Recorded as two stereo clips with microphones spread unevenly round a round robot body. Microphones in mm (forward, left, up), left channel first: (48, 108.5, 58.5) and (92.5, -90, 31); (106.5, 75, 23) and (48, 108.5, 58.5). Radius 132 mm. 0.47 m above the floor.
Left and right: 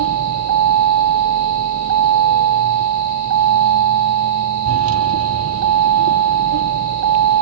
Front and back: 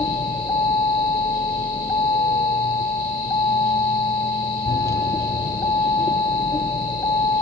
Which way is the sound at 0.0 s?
95° right.